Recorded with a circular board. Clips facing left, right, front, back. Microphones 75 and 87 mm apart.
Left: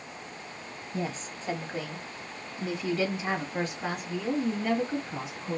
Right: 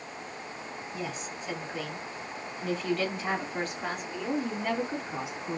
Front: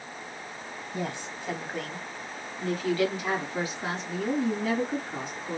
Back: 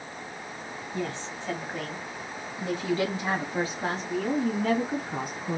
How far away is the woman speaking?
About 1.6 m.